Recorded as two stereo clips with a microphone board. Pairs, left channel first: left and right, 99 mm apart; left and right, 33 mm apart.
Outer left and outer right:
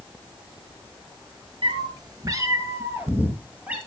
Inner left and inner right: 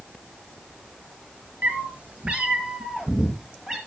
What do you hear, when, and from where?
1.6 s a cat meowing: 55° right (ahead or behind), 1.5 m; by 3.8 s 15° right (ahead or behind), 2.5 m